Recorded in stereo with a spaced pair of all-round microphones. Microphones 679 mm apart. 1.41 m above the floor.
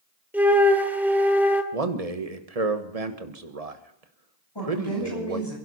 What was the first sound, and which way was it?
A flute, 5° right (ahead or behind).